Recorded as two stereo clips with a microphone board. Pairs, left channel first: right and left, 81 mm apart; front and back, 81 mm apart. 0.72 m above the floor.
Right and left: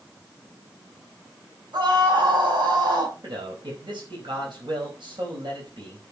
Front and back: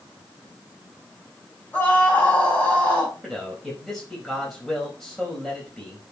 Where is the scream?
70° left, 4.5 m.